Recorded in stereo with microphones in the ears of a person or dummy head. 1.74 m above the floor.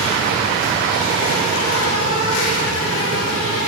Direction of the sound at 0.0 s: 85° left.